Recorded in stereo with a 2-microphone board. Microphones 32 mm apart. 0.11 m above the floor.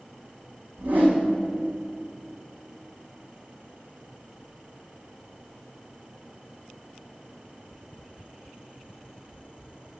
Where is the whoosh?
50° right (ahead or behind), 3 m.